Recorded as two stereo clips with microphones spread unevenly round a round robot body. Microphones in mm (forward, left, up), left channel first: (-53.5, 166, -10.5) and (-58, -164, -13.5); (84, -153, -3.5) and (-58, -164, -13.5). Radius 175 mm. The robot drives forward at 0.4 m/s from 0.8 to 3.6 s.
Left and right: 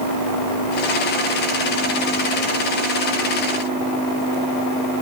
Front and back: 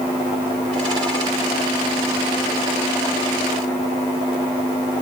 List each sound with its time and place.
Only background noise.